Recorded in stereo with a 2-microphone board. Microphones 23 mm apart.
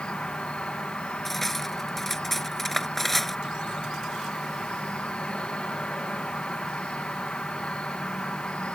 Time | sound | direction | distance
0.0 | an insect | 55° left (ahead or behind) | ?
1.2 | cutlery clinking | 10° left (ahead or behind) | ?